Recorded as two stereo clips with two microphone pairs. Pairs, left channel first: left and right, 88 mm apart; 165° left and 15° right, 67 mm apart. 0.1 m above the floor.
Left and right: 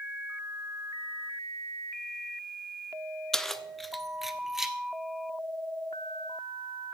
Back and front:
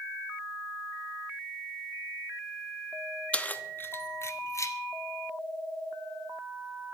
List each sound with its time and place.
3.3 s keys jangling: 165° left, 0.8 m; by 4.8 s 175° right, 1.3 m